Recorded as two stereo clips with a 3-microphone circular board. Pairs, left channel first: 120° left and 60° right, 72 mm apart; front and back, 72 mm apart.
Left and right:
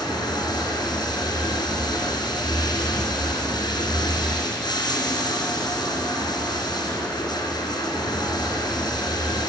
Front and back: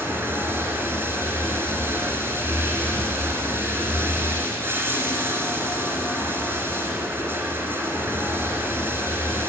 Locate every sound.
0.0 s running water: 125° left, 2 m